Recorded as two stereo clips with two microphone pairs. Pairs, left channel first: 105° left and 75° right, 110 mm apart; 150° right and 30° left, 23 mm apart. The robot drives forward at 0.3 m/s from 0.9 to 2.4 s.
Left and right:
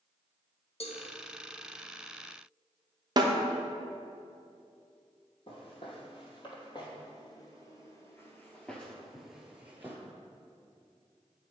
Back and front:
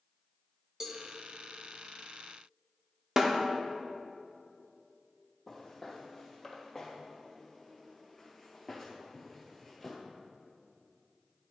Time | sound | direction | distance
0.8 | a cowbell | 90° left | 0.8 m
3.2 | a snare drum | 35° right | 0.6 m
5.5 | footsteps | 125° left | 2.5 m